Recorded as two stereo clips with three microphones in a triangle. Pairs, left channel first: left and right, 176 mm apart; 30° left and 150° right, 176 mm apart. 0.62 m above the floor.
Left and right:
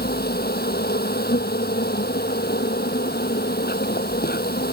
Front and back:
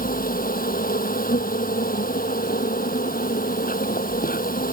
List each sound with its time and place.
0.0 s an insect: 65° left